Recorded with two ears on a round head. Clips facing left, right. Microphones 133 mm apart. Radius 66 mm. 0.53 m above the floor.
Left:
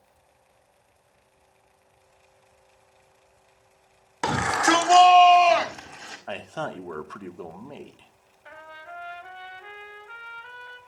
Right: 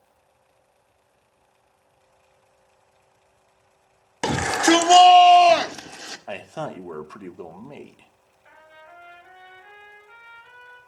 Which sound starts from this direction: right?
A shout, at 4.2 s.